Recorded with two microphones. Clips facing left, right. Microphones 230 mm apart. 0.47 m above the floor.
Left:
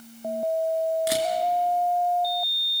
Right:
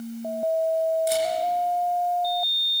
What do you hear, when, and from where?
1.1 s a camera shutter: 85° left, 3 m